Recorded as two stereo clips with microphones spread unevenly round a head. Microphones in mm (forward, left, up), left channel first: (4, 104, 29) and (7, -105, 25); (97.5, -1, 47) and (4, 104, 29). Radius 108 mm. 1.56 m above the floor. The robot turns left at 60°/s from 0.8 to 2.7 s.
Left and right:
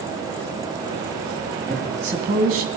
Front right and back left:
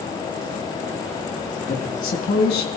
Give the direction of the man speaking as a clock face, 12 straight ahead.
12 o'clock.